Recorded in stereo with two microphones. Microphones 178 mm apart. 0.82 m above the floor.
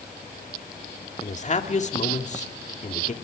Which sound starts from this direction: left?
A man speaking, at 1.2 s.